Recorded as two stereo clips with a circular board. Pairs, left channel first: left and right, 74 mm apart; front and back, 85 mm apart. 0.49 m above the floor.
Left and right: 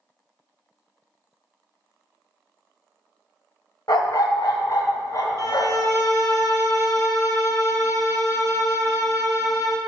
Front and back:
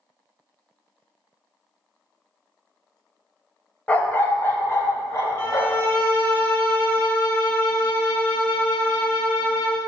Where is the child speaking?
No child speaking in this recording.